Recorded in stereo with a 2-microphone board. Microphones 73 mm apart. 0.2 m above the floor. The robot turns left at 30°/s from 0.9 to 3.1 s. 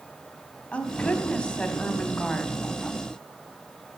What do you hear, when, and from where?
0.7 s a woman speaking: 20° left (ahead or behind), 1.4 m; by 2.6 s 5° left (ahead or behind), 1.4 m